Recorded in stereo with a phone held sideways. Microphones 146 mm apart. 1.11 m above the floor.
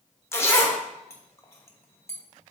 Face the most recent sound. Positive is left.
turn(degrees=15)  # may be behind; listen again after turning